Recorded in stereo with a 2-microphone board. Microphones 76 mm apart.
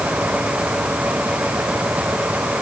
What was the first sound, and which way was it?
Only background noise.